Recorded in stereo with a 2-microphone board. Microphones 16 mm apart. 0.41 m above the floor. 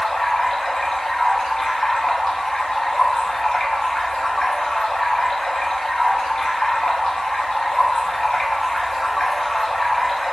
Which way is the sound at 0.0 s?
45° left (ahead or behind).